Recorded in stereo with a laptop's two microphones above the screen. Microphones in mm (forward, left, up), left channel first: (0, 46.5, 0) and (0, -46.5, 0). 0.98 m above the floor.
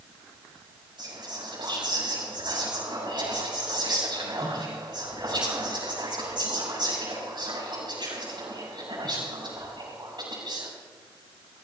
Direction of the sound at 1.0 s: 55° right (ahead or behind).